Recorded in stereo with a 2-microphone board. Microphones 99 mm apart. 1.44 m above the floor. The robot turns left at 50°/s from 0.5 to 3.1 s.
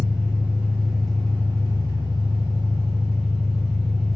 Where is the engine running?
150° right, 1.8 m; by 4.2 s 80° left, 1.8 m.